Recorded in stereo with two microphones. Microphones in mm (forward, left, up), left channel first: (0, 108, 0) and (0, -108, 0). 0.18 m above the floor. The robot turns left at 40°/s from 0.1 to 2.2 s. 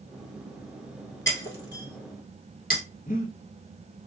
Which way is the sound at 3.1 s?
40° left (ahead or behind).